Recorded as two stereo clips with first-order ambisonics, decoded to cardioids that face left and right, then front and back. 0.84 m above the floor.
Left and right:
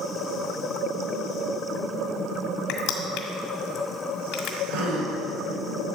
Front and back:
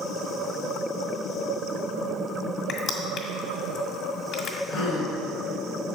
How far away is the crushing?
About 1.9 m.